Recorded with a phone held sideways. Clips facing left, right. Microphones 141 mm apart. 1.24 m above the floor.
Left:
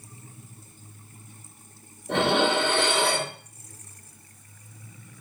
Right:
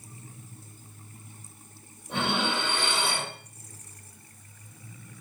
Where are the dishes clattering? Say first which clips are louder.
Left 7 dB; 75° left (ahead or behind), 1.8 m.